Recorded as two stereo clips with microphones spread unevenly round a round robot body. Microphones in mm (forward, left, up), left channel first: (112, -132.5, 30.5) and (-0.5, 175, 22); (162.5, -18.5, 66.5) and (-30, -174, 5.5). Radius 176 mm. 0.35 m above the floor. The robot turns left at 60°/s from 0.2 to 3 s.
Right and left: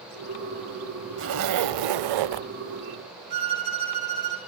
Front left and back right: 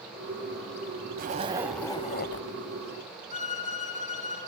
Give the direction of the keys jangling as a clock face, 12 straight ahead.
I don't hear keys jangling.